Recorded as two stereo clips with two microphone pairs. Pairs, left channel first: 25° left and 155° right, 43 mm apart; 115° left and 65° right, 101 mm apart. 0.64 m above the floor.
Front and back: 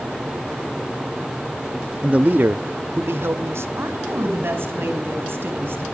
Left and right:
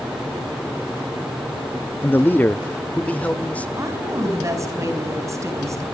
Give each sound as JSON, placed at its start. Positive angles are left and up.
{"t": 2.0, "sound": "a man speaking", "azimuth_deg": 160, "distance_m": 0.6}
{"t": 3.8, "sound": "a woman speaking", "azimuth_deg": -125, "distance_m": 4.5}